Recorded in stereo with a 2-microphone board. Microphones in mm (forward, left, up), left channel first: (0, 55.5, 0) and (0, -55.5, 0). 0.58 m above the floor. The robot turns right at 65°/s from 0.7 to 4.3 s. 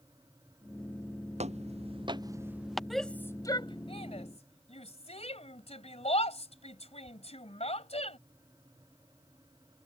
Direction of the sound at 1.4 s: 85° right.